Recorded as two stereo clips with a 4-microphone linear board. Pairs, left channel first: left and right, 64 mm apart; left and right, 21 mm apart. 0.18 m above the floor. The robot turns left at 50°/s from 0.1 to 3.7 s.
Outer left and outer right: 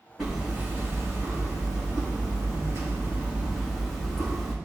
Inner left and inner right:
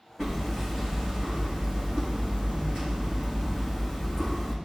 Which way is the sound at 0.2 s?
Straight ahead.